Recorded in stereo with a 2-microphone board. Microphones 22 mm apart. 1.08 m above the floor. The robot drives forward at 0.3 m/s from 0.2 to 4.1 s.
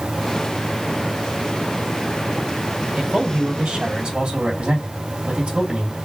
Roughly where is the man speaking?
Right.